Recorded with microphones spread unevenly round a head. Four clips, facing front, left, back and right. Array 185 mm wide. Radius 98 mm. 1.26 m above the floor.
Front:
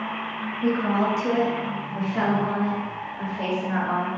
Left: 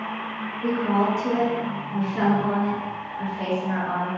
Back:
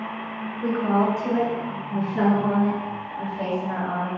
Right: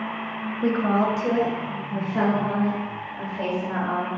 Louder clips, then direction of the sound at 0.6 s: Right 1 dB, back 1 dB; 75° right.